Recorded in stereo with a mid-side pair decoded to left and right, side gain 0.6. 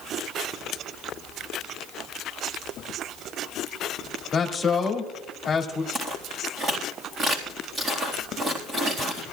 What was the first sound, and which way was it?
A man speaking, 30° left.